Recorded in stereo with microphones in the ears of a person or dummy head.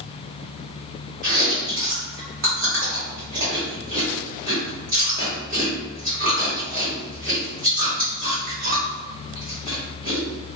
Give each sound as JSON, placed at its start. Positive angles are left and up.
{"t": 1.2, "sound": "chewing", "side_deg": -40, "distance_m": 1.6}